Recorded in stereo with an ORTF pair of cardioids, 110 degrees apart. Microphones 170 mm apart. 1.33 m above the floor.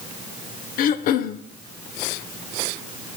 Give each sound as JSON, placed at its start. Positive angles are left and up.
{"t": 0.8, "sound": "throat clearing", "azimuth_deg": 65, "distance_m": 0.5}